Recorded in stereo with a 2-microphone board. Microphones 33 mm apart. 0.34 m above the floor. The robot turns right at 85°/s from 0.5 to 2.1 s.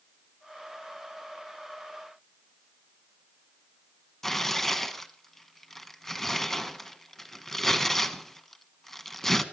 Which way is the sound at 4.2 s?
10° left (ahead or behind).